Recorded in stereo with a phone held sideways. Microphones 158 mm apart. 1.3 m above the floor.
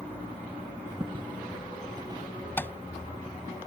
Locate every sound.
1.0 s footsteps: 30° right (ahead or behind); by 2.3 s 25° right (ahead or behind)
2.6 s tapping: 15° left (ahead or behind)